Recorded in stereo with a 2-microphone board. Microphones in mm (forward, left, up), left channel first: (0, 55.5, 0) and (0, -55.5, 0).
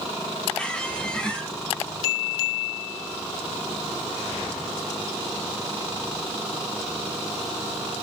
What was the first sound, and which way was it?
A squeak, 10° left (ahead or behind).